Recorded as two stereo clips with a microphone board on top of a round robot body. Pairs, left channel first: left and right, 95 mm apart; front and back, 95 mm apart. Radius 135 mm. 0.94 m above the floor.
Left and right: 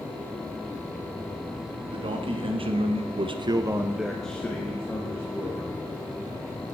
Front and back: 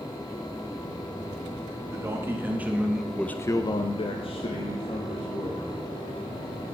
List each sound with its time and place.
1.9 s a man speaking: 120° right, 2.0 m; by 5.8 s 30° left, 2.5 m